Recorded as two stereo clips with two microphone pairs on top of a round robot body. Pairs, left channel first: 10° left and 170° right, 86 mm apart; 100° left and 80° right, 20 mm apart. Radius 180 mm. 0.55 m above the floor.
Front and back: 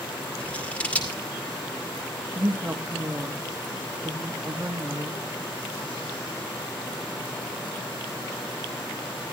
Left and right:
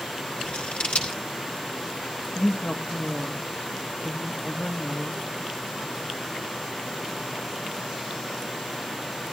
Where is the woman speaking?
120° left, 1.8 m.